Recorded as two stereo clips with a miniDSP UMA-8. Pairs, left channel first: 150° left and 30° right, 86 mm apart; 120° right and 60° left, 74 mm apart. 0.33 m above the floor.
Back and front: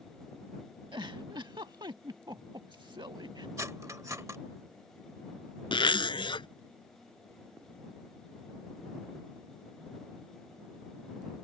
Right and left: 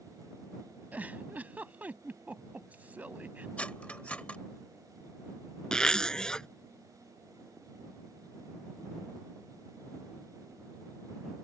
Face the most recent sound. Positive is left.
turn(degrees=160)